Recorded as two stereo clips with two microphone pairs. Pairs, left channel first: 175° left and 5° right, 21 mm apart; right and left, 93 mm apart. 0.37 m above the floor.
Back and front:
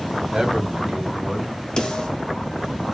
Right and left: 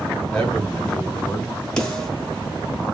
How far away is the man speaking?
About 1.7 m.